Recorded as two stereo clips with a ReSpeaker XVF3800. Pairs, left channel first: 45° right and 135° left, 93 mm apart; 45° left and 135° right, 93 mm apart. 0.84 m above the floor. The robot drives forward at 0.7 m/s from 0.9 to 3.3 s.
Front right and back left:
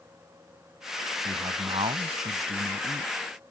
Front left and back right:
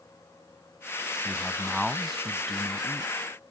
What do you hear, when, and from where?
1.2 s a man speaking: 130° left; by 3.1 s 140° left